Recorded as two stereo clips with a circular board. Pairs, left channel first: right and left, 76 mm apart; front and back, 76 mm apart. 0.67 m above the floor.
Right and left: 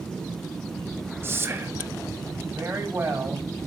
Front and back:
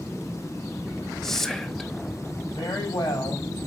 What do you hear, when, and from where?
1.2 s whispering: 75° left, 0.9 m
2.5 s a woman speaking: 30° left, 4 m